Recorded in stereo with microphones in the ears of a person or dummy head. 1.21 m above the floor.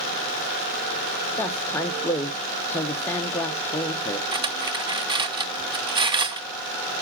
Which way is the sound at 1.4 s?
10° left (ahead or behind).